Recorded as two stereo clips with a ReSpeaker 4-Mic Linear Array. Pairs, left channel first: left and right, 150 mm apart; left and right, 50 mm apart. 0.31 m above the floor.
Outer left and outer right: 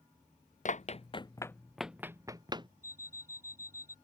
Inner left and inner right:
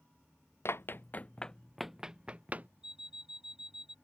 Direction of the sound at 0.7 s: 55° left (ahead or behind).